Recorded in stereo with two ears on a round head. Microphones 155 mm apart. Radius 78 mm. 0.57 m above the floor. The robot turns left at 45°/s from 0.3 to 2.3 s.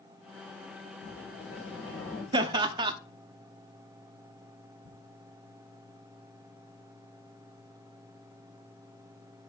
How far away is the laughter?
About 0.6 m.